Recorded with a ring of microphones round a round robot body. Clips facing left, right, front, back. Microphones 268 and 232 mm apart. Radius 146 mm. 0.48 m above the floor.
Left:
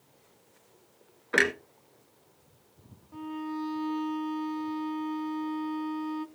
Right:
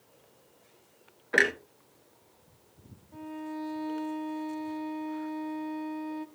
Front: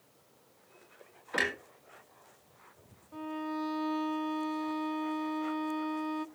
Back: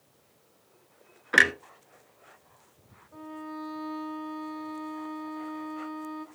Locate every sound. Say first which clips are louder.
1.3 s a clunk: left 1 dB, back 5 dB; 170° left, 1.1 m
3.1 s a violin: left 3 dB, front 3 dB; 30° left, 0.7 m